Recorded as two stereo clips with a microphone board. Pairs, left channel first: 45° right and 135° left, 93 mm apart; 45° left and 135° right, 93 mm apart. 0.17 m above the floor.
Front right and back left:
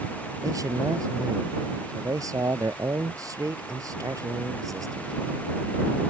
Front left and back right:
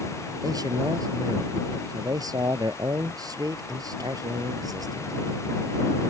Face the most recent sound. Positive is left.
turn(degrees=180)